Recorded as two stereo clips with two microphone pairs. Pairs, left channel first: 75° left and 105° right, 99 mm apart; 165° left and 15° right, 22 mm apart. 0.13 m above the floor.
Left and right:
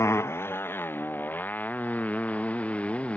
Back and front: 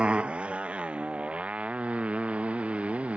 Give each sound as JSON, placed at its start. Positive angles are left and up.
{"t": 0.0, "sound": "a motorcycle", "azimuth_deg": 15}